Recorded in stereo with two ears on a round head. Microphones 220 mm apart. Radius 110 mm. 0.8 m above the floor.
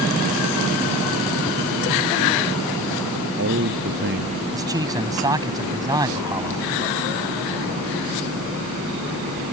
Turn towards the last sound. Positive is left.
turn(degrees=-15)  # may be behind; listen again after turning